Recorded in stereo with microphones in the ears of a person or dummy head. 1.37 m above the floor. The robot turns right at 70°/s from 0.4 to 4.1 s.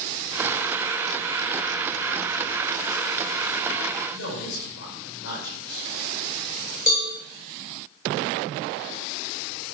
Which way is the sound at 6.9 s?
45° left (ahead or behind).